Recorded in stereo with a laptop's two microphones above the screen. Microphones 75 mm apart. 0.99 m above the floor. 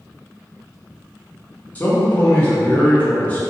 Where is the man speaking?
20° left (ahead or behind), 0.7 m.